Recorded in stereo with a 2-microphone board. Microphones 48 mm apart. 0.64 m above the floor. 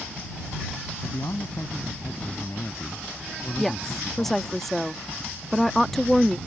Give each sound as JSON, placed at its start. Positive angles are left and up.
{"t": 1.0, "sound": "a man speaking", "side_deg": 80}
{"t": 3.6, "sound": "a woman speaking", "side_deg": 5}